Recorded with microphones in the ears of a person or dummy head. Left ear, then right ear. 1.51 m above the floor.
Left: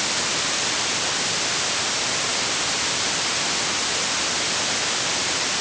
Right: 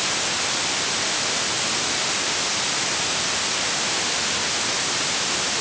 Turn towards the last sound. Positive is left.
No sound to turn to.